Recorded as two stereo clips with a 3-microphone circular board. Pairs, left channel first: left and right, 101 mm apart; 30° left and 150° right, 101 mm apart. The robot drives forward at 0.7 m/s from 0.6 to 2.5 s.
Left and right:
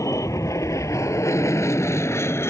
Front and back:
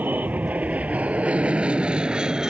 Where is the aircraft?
140° left; by 2.5 s 130° left.